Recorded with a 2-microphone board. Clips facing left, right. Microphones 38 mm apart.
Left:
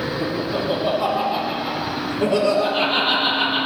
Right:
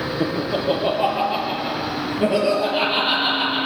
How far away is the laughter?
About 5.5 m.